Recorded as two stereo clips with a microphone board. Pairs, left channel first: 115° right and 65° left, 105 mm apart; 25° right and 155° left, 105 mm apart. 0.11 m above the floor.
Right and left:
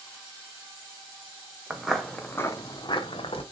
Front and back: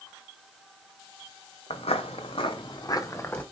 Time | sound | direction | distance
1.7 | footsteps | 15° right | 0.8 m